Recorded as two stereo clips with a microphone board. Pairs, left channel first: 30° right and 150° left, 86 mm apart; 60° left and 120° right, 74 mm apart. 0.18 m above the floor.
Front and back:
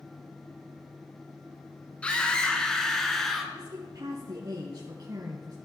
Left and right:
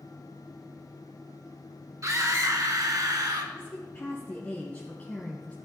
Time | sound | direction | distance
2.0 | a scream | 100° right | 2 m
3.5 | a woman speaking | 125° left | 2 m